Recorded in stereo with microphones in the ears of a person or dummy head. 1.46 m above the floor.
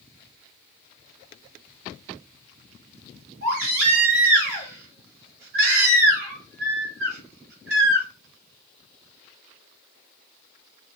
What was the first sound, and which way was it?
A baby crying, 80° right.